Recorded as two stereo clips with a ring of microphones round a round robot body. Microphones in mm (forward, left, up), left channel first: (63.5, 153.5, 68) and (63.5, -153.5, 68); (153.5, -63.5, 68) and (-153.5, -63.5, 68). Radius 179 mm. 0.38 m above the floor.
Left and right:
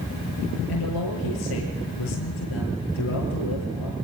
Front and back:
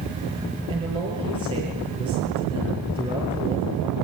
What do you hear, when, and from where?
0.7 s a man speaking: 105° left, 9 m